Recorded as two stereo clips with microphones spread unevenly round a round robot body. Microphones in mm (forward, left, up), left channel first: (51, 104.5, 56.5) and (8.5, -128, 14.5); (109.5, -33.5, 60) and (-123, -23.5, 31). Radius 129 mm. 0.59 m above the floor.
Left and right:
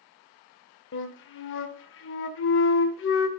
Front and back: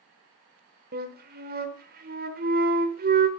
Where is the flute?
125° left, 0.9 m.